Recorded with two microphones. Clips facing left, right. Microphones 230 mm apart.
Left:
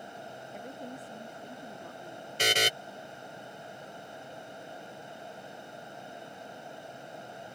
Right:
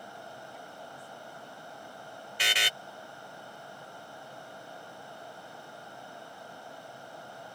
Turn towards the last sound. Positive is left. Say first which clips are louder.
# left 9 dB
turn(degrees=45)  # may be behind; listen again after turning